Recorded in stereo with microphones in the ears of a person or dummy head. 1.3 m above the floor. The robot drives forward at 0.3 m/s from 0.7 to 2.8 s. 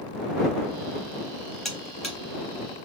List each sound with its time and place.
1.6 s a buzzer: centre (ahead or behind), 0.9 m